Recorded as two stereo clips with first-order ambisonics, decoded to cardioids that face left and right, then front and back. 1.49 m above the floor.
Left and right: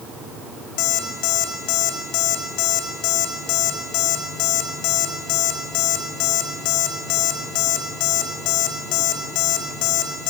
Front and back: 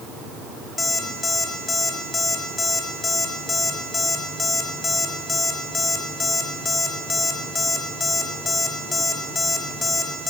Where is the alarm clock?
75° left, 2.5 m.